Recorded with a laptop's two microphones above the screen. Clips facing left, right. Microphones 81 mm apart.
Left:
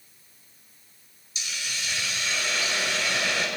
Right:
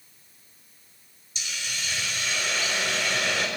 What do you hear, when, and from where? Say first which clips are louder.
1.4 s a hiss: even; 5° left (ahead or behind), 3 m